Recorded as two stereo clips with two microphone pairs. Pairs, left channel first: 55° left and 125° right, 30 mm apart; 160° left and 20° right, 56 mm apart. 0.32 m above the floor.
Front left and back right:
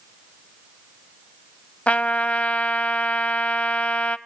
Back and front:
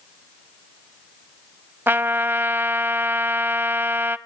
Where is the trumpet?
20° left, 0.6 m.